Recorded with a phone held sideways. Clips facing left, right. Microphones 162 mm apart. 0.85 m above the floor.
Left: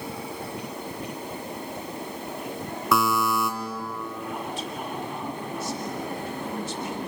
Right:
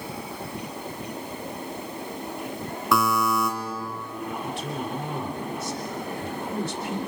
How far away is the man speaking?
About 3.5 m.